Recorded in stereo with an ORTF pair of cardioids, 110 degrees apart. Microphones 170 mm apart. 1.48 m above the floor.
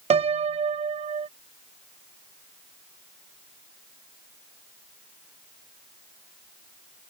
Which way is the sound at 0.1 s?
40° right.